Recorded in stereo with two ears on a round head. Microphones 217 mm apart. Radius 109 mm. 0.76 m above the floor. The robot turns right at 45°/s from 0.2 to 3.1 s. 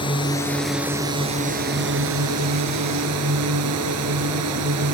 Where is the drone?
160° left; by 4.9 s 70° right.